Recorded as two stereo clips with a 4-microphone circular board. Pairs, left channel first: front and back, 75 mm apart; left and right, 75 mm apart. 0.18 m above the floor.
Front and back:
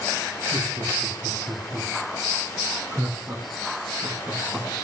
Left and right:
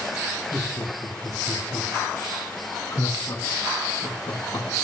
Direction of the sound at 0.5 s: 155° left.